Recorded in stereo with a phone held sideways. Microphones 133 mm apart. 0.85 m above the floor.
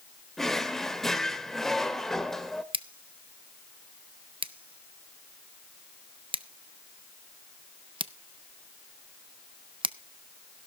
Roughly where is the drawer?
Centre.